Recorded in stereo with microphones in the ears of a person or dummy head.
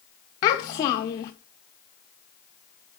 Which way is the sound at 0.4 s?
20° left (ahead or behind).